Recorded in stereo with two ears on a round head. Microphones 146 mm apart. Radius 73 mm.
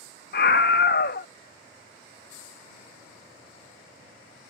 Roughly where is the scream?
Left.